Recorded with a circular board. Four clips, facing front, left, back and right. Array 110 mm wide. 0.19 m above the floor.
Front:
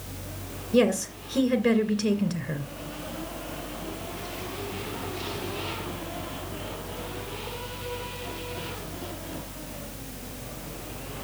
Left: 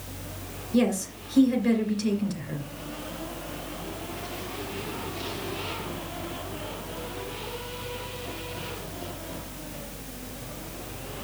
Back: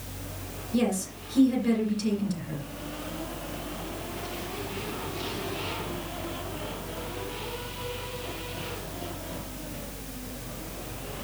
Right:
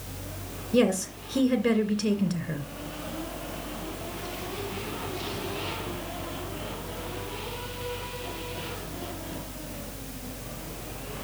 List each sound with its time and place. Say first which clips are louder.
0.7 s a woman speaking: right 1 dB, front 5 dB; 40° right, 2 m